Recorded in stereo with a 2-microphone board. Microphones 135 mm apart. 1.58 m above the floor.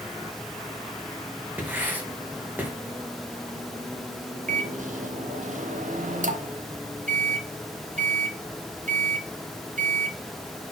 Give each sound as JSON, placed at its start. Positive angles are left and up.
{"t": 1.6, "sound": "writing", "side_deg": -10, "distance_m": 2.5}
{"t": 4.5, "sound": "a microwave", "side_deg": -65, "distance_m": 1.5}